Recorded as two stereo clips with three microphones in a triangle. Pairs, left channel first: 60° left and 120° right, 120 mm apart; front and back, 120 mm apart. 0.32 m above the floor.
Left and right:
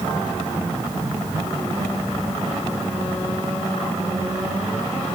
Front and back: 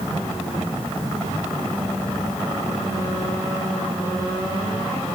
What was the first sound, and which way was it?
Only background noise.